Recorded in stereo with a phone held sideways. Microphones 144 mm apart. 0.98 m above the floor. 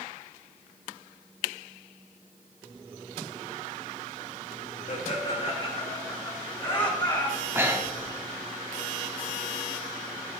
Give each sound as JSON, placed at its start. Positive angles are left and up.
{"t": 4.9, "sound": "laughter", "side_deg": 55, "distance_m": 1.3}
{"t": 7.4, "sound": "breathing", "side_deg": -15, "distance_m": 1.4}